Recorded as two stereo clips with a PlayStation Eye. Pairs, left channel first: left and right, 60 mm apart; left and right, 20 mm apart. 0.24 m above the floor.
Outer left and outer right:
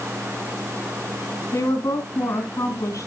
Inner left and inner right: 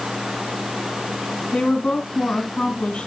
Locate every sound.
1.5 s a woman speaking: 55° left (ahead or behind), 2.5 m